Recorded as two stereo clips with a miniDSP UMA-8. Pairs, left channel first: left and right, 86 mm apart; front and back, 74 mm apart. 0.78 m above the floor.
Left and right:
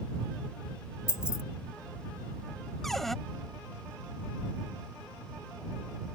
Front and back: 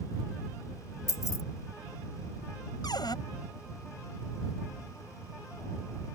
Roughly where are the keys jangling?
Ahead left.